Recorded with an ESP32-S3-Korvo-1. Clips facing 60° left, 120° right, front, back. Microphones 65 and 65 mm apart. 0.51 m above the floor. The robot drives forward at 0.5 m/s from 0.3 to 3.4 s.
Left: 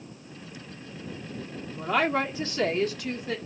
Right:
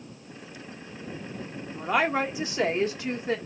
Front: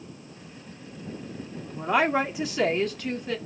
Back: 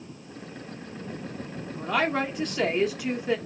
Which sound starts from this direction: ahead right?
A woman speaking, at 1.7 s.